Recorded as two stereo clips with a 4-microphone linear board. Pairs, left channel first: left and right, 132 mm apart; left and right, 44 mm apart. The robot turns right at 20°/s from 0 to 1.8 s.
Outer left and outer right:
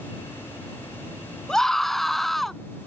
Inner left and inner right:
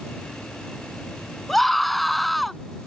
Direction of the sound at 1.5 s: 5° left (ahead or behind).